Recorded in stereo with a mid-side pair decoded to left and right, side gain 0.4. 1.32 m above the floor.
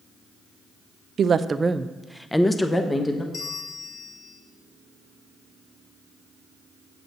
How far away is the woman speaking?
About 0.6 m.